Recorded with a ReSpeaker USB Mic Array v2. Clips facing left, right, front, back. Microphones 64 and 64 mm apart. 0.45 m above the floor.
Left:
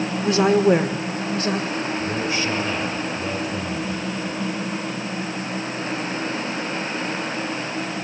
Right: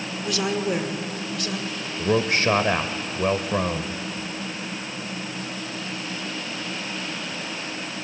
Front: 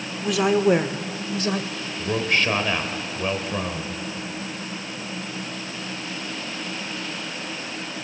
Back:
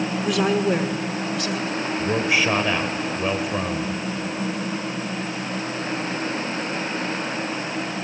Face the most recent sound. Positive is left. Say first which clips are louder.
# right 2 dB, back 1 dB
turn(degrees=-100)